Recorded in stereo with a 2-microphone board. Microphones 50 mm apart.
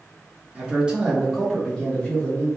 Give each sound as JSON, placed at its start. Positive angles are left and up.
{"t": 0.6, "sound": "a man speaking", "side_deg": -25, "distance_m": 0.9}